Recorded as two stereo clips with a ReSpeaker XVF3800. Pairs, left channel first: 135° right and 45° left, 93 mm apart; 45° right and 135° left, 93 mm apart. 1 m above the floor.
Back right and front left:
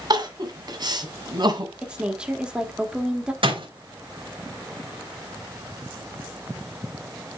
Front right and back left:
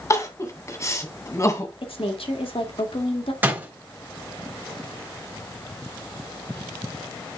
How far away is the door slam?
About 3.5 m.